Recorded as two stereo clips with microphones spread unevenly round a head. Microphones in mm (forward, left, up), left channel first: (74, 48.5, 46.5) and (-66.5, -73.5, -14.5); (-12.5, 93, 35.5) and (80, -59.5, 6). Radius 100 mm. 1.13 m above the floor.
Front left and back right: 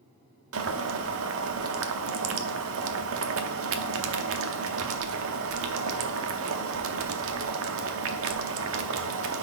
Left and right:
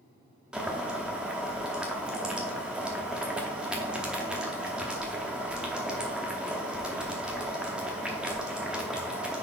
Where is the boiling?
155° right, 0.7 m.